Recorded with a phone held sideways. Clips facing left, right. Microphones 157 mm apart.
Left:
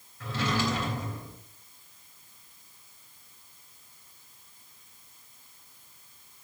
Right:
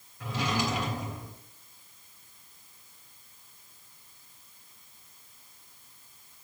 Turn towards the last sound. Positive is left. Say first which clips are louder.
# left 1 dB
turn(degrees=-15)  # may be behind; listen again after turning